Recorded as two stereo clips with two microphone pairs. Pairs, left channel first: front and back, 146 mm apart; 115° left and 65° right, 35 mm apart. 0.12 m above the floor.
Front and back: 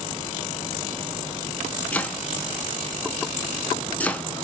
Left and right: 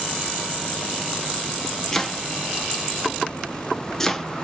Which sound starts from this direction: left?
Chopping, at 1.9 s.